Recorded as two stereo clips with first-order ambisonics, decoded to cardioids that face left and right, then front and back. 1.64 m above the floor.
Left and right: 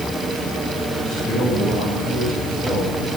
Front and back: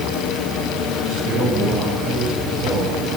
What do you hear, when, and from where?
1.0 s a man speaking: 155° right, 8.5 m